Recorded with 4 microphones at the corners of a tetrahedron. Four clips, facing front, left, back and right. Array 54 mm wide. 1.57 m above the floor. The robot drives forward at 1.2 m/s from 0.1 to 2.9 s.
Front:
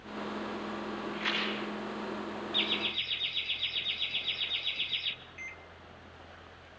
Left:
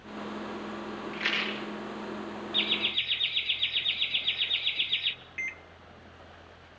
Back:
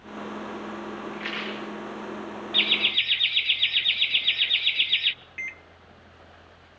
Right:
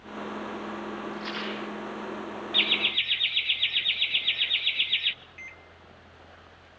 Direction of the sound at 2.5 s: 140° right.